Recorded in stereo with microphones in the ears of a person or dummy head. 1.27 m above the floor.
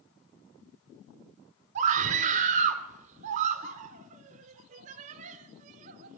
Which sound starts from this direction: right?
A scream, at 1.8 s.